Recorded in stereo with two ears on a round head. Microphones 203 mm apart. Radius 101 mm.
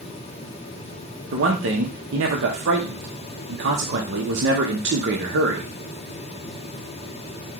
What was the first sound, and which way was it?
A man speaking, 50° right (ahead or behind).